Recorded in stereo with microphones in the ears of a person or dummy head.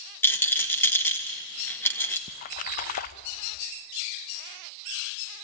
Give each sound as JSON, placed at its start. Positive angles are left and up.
{"t": 0.2, "sound": "a rattle", "side_deg": 10, "distance_m": 1.6}
{"t": 2.3, "sound": "a splash", "side_deg": 55, "distance_m": 0.6}